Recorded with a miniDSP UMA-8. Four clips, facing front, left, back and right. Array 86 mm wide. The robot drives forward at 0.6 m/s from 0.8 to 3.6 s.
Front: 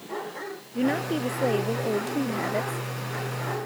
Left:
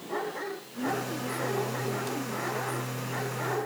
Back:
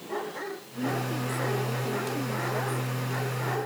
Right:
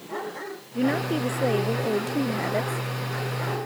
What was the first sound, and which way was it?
A woman speaking, 50° right.